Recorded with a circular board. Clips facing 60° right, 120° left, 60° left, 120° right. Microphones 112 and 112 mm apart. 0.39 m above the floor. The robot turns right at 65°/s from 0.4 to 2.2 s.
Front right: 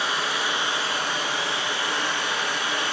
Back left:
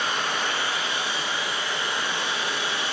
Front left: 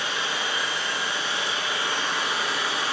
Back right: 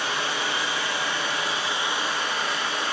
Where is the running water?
145° right, 1.4 m; by 2.9 s 30° right, 1.4 m.